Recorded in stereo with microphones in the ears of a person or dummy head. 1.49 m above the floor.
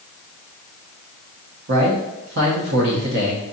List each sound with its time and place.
1.7 s a man speaking: 55° right (ahead or behind), 0.7 m